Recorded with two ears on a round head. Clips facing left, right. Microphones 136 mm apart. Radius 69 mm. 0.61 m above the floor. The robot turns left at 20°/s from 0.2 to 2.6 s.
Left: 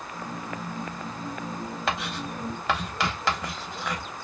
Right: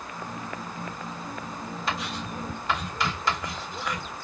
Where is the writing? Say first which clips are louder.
Left 1 dB; 50° left (ahead or behind), 1.0 m; by 4.1 s 55° left (ahead or behind), 1.0 m.